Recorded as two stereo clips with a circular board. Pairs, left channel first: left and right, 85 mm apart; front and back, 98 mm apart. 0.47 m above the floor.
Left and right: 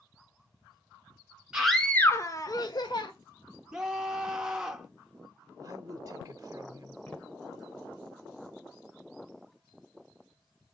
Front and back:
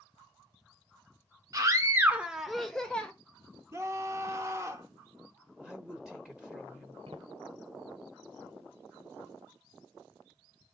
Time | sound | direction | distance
1.5 | a scream | 165° right | 0.9 m
3.7 | a scream | 165° right | 1.1 m
5.6 | a woman speaking | 100° right | 1.3 m
7.1 | footsteps | 160° left | 3.5 m